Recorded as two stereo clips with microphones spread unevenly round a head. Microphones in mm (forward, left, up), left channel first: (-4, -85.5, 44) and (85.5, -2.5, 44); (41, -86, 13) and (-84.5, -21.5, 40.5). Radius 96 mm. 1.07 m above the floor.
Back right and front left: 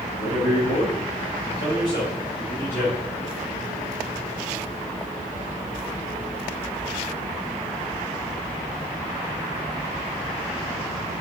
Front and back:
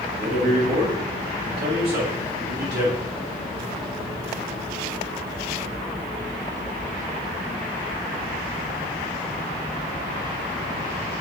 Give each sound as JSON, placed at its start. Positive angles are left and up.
{"t": 0.1, "sound": "a man speaking", "azimuth_deg": -160, "distance_m": 1.6}